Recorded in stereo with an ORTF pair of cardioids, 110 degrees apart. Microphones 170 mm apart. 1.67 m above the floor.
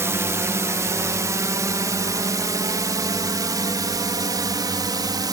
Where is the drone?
15° right; by 5.3 s 25° right.